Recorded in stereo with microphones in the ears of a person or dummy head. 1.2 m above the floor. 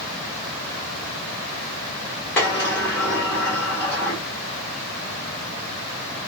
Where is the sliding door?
15° left (ahead or behind), 1.0 m.